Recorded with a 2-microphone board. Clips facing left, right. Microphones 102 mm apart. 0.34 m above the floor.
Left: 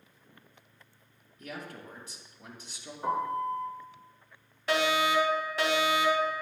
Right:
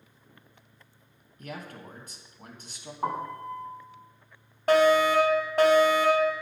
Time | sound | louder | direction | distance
1.4 | a man speaking | right 1 dB | 55° right (ahead or behind) | 3 m
3.0 | a piano | left 2 dB | 70° right (ahead or behind) | 2.5 m
4.7 | a fire alarm | right 7 dB | 50° right (ahead or behind) | 3.5 m